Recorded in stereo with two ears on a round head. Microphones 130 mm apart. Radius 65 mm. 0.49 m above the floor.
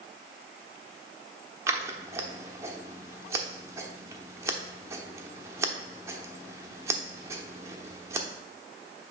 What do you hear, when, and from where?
1.7 s scissors: 20° right (ahead or behind), 1.0 m